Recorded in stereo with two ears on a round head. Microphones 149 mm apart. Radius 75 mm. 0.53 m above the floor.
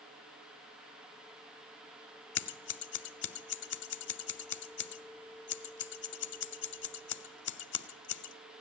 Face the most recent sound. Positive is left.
turn(degrees=75)  # may be behind; listen again after turning